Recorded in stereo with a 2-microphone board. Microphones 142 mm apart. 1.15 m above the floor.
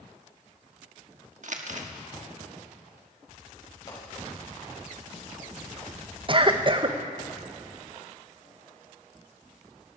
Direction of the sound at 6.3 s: 35° right (ahead or behind).